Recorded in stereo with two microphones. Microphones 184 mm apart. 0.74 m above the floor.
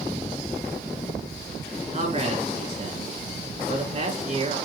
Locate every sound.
1.9 s a man speaking: 40° right (ahead or behind), 3 m